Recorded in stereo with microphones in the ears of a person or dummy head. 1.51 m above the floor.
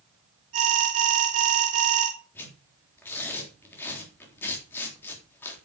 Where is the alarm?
40° right (ahead or behind), 3.5 m.